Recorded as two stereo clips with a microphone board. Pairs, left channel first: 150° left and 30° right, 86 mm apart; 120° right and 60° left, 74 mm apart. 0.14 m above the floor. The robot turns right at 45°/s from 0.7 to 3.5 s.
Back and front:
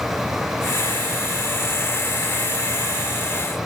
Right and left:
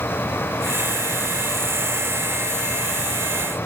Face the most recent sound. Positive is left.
No sound to turn to.